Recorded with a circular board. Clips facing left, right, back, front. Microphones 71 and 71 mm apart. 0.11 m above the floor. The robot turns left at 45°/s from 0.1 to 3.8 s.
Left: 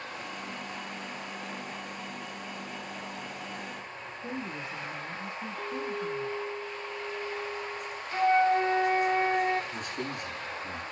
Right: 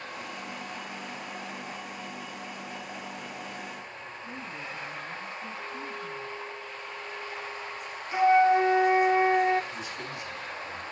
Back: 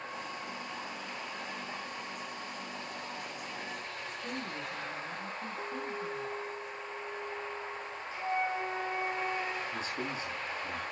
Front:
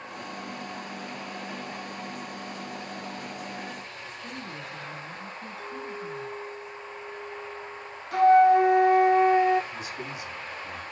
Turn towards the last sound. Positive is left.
turn(degrees=125)